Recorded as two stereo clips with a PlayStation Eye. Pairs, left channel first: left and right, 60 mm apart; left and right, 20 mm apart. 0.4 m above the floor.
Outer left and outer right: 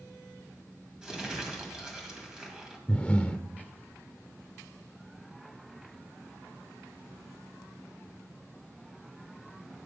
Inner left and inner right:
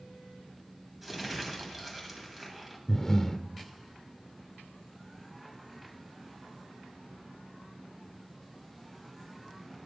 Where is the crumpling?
15° right (ahead or behind), 1.9 m.